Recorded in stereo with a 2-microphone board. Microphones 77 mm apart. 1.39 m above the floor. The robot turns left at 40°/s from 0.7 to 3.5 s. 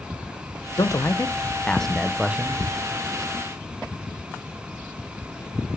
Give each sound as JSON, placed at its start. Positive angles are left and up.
{"t": 0.8, "sound": "a man speaking", "azimuth_deg": 50, "distance_m": 0.5}